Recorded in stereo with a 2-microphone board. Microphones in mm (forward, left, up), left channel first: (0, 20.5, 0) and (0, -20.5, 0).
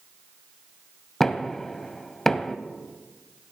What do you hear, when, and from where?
1.2 s knocking: 10° left (ahead or behind), 0.9 m